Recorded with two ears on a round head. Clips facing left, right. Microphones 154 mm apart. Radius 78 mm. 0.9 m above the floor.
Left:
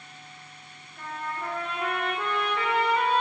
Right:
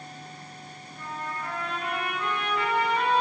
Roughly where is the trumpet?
Left.